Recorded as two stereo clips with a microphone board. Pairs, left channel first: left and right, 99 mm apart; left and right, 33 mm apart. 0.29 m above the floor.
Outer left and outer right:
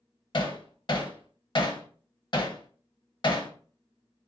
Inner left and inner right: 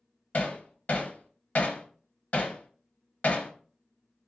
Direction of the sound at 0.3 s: 50° left (ahead or behind).